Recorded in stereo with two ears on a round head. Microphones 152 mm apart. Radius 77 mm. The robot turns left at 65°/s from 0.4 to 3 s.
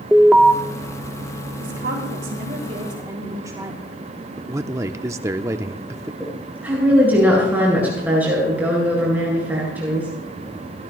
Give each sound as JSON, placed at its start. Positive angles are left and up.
{"t": 0.1, "sound": "an alarm", "side_deg": -5, "distance_m": 0.9}
{"t": 1.6, "sound": "a woman speaking", "azimuth_deg": -65, "distance_m": 3.0}
{"t": 4.4, "sound": "a man speaking", "side_deg": -15, "distance_m": 0.7}
{"t": 6.2, "sound": "a woman speaking", "side_deg": -10, "distance_m": 9.0}